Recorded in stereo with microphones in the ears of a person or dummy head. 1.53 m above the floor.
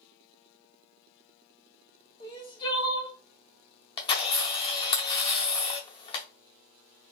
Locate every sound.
2.2 s crying: 20° left (ahead or behind), 1.5 m
4.0 s a camera shutter: 25° left (ahead or behind), 0.6 m